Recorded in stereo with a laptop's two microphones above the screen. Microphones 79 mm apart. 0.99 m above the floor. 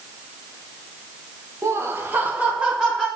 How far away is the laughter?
About 0.6 m.